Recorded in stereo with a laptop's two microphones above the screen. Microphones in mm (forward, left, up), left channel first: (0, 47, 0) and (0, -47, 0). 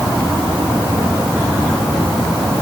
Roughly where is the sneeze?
No sneeze in this recording.